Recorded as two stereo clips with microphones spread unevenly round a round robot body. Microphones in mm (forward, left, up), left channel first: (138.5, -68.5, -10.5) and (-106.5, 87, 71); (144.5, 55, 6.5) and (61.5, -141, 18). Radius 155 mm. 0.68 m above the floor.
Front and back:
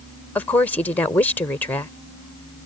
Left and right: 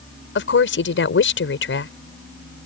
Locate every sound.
0.3 s a woman speaking: 45° left